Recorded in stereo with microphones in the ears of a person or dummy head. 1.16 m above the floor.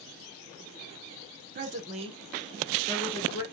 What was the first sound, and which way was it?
A woman speaking, 45° right (ahead or behind).